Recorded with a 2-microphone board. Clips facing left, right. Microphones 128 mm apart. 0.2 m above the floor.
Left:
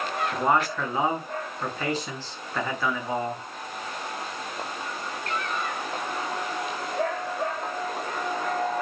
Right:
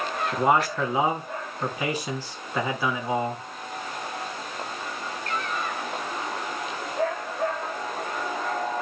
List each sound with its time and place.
0.3 s a man speaking: 10° right (ahead or behind), 2.5 m